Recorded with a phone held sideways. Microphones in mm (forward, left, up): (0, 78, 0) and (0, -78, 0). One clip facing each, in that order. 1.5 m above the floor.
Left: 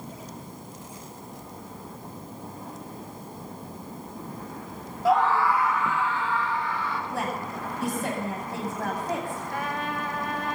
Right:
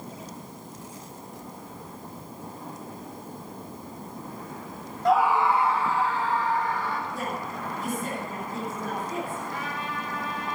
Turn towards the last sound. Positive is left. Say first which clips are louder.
# left 3 dB
turn(degrees=55)  # may be behind; listen again after turning